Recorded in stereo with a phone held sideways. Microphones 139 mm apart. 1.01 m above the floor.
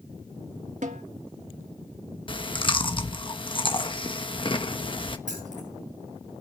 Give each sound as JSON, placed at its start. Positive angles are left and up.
{"t": 0.8, "sound": "a snare drum", "side_deg": -60, "distance_m": 1.4}
{"t": 2.3, "sound": "chewing", "side_deg": 40, "distance_m": 1.1}
{"t": 5.3, "sound": "keys jangling", "side_deg": -60, "distance_m": 9.0}